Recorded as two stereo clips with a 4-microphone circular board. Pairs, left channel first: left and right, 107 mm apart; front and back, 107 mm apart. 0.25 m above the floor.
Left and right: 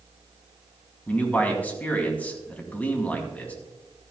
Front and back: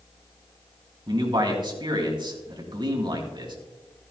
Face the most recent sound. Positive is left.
turn(degrees=160)